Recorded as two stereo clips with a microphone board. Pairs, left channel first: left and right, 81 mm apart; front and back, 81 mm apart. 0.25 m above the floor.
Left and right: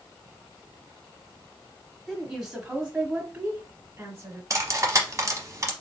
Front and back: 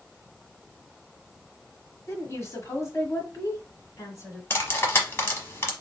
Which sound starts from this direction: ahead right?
Cutlery clinking, at 4.5 s.